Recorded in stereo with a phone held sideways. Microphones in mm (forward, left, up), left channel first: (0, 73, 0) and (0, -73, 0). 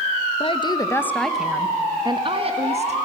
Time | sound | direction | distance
0.4 | a woman speaking | 40° left (ahead or behind) | 1.3 m